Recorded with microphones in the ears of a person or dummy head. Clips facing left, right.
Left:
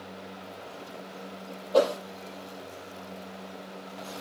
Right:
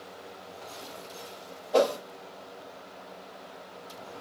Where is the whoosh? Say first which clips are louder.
Left 1 dB; 75° right (ahead or behind), 4.5 m.